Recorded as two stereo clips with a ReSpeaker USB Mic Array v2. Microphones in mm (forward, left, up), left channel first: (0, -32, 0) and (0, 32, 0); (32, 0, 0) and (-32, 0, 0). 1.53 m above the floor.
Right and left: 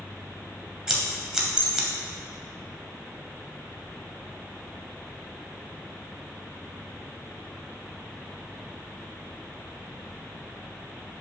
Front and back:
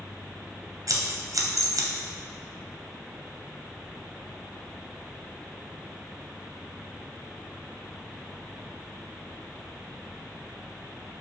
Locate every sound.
0.9 s scissors: 170° left, 0.7 m